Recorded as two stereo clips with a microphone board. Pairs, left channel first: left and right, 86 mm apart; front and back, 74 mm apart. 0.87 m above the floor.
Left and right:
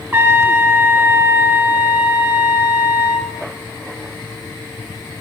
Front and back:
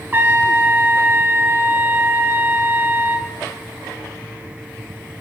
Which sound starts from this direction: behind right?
A trumpet, at 0.1 s.